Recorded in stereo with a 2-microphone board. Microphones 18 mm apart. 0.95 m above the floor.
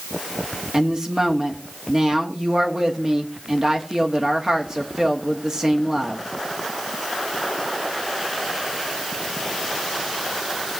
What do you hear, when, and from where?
0.7 s a woman speaking: 35° right (ahead or behind), 1.3 m